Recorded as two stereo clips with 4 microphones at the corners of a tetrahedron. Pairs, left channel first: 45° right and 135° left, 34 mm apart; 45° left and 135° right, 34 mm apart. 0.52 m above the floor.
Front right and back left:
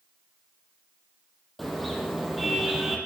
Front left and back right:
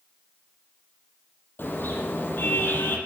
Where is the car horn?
40° left, 6.5 m; by 3.0 s 50° left, 6 m.